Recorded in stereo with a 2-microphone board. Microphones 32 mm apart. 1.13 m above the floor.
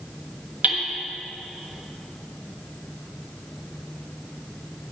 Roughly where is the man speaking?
I don't hear a man speaking.